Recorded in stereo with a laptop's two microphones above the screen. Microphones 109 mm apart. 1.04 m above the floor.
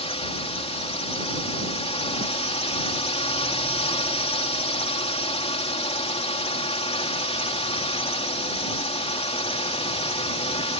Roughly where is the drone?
Left.